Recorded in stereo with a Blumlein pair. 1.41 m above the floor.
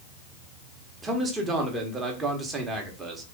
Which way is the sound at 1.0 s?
15° right.